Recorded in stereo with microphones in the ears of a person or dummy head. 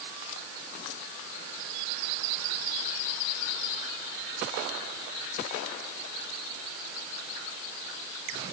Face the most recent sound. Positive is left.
No sound to turn to.